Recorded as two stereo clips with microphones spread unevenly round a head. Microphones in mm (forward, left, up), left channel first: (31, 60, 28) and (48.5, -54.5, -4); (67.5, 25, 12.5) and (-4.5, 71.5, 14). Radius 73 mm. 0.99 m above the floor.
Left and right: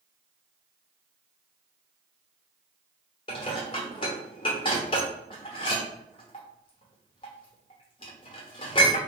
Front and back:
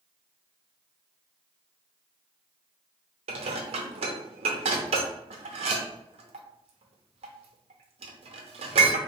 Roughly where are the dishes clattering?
Behind.